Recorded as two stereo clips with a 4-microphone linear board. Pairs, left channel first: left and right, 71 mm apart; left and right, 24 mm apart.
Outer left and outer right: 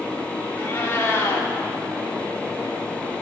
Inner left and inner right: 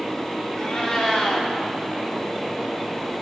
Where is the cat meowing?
35° left (ahead or behind), 3.5 m.